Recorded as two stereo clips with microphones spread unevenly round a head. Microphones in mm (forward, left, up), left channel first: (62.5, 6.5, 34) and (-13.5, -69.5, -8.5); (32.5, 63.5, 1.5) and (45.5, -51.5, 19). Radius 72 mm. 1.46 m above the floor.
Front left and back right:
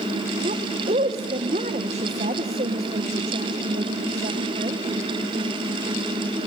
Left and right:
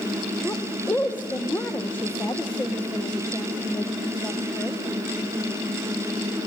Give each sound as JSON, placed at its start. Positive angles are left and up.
{"t": 0.4, "sound": "a woman speaking", "azimuth_deg": 175, "distance_m": 1.0}